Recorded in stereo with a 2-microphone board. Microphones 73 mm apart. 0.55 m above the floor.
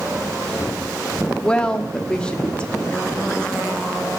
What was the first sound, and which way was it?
A woman speaking, 10° left (ahead or behind).